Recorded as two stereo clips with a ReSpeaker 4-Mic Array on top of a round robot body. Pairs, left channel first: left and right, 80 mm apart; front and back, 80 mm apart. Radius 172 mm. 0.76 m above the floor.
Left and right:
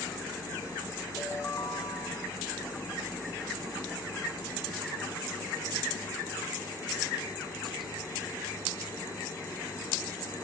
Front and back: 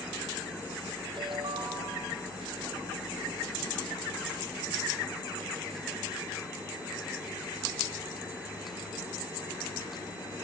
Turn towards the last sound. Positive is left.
turn(degrees=150)